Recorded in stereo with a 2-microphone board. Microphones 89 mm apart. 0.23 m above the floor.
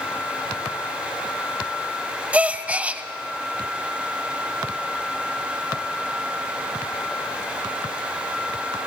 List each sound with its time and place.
2.3 s a gasp: 15° right (ahead or behind), 0.7 m